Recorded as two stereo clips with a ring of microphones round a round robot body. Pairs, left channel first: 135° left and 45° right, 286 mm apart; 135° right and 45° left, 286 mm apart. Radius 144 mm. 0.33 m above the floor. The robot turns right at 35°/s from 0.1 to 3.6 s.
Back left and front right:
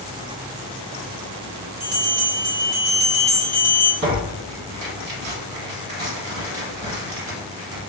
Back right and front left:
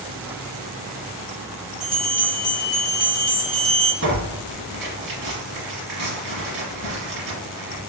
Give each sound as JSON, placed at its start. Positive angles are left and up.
{"t": 1.8, "sound": "a bell", "azimuth_deg": -40, "distance_m": 1.7}
{"t": 4.0, "sound": "tearing paper", "azimuth_deg": 0, "distance_m": 1.6}